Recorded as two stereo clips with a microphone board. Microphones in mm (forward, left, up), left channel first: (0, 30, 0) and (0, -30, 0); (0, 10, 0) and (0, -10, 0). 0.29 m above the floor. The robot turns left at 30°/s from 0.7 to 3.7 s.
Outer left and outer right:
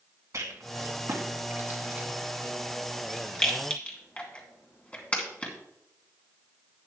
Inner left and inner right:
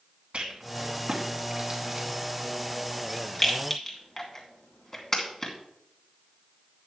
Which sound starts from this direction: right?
A rattle, at 0.3 s.